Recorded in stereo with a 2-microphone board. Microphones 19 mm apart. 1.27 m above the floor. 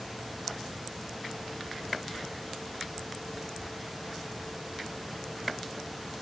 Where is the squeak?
I don't hear a squeak.